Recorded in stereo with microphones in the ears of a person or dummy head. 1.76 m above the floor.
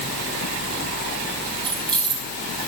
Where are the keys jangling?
Centre (ahead or behind), 2.5 m.